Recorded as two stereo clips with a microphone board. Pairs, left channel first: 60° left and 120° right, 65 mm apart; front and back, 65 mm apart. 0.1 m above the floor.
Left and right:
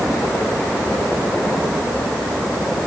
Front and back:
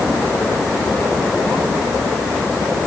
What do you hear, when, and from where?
Only background noise.